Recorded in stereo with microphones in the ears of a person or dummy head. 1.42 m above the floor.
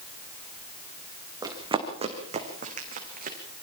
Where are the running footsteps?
20° right (ahead or behind), 3.5 m; by 3.4 s 50° right (ahead or behind), 4.5 m.